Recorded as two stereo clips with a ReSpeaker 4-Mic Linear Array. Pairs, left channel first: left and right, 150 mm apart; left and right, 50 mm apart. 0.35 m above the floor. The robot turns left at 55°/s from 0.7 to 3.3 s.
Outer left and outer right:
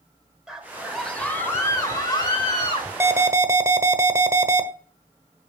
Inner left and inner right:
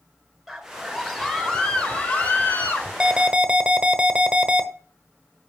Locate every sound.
0.5 s a scream: 5° right (ahead or behind), 1.2 m; by 2.9 s 25° left (ahead or behind), 1.2 m
3.0 s an alarm: 15° right (ahead or behind), 1.0 m; by 4.7 s 20° right (ahead or behind), 1.0 m